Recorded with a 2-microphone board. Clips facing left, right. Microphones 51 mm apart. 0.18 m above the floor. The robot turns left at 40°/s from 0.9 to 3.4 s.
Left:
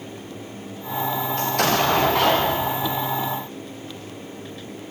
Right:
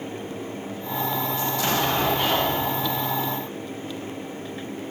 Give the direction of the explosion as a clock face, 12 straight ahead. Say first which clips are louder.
Left 5 dB; 8 o'clock.